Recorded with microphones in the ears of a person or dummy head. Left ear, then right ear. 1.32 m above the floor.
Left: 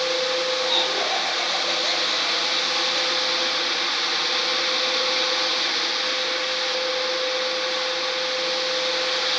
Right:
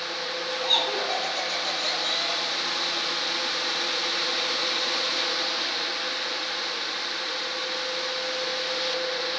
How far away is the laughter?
About 9.5 m.